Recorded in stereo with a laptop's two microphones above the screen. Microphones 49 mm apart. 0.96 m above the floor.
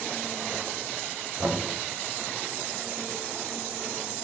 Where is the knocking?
50° right (ahead or behind), 3.5 m.